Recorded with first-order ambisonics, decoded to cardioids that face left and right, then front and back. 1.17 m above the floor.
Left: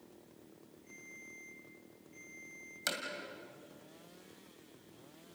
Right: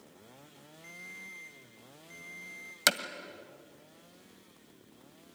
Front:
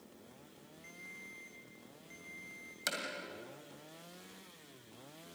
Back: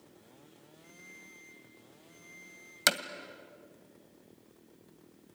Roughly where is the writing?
No writing in this recording.